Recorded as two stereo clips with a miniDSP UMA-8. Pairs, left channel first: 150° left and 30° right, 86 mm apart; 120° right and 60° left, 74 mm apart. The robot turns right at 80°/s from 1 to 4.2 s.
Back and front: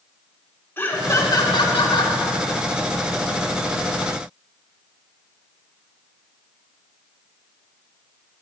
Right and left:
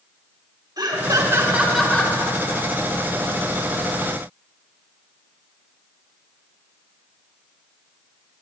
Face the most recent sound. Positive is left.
turn(degrees=-15)